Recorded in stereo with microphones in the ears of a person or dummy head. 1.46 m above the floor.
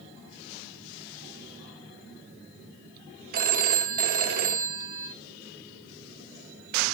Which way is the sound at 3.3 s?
50° right (ahead or behind).